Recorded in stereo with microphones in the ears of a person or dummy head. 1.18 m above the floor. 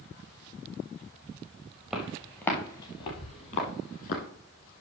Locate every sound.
1.9 s footsteps: 5° right (ahead or behind), 1.2 m; by 4.2 s 45° left (ahead or behind), 1.8 m